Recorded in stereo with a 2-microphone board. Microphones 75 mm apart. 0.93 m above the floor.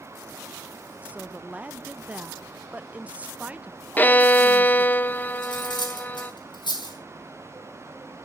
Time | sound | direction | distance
1.0 | a woman speaking | 20° right (ahead or behind) | 0.8 m
4.0 | a violin | 20° left (ahead or behind) | 0.8 m
5.4 | cutlery clinking | 75° left (ahead or behind) | 5 m